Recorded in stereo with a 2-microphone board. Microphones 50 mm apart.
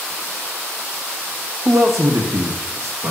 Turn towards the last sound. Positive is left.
turn(degrees=-55)  # may be behind; listen again after turning